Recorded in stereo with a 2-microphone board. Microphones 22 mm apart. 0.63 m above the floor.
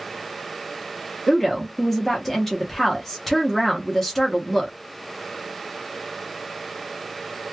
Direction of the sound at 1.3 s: 15° left (ahead or behind).